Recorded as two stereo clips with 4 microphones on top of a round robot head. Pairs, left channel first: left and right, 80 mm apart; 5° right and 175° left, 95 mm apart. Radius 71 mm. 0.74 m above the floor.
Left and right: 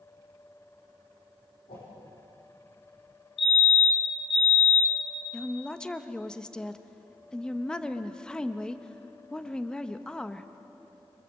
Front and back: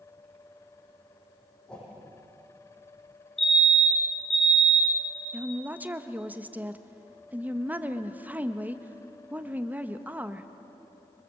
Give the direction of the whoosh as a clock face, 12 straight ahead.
10 o'clock.